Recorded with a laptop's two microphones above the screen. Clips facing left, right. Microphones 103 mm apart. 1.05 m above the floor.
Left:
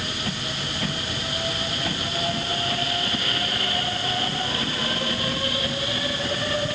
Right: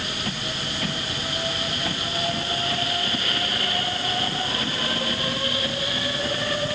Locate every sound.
Only background noise.